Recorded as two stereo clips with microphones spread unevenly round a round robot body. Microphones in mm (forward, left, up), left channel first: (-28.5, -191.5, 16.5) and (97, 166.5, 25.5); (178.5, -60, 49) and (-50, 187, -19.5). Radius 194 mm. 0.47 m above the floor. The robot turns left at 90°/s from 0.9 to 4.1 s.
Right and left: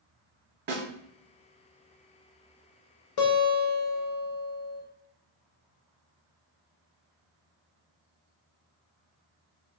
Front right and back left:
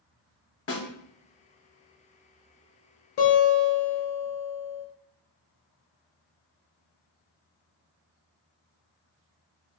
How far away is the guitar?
About 0.8 m.